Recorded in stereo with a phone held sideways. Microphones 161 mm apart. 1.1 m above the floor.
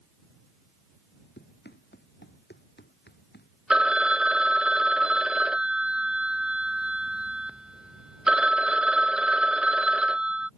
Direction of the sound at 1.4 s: 85° left.